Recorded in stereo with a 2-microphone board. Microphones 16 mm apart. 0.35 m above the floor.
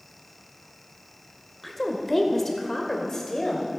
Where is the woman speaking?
5° left (ahead or behind), 1.5 m; by 3.8 s 30° left (ahead or behind), 1.8 m.